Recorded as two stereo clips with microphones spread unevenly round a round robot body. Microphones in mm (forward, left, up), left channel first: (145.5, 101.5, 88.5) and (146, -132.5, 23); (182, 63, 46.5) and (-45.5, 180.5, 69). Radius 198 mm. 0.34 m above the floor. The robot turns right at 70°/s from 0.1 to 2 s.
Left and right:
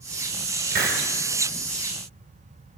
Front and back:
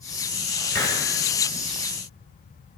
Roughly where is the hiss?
Right.